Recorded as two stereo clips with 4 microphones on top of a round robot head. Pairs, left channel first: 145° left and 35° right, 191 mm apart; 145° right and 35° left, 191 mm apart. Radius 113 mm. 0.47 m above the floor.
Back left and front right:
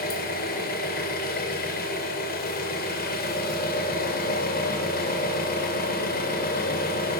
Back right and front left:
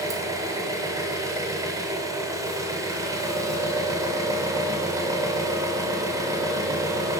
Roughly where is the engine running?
Left.